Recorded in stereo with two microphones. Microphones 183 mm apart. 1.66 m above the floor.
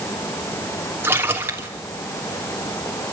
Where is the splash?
10° right (ahead or behind), 3 m.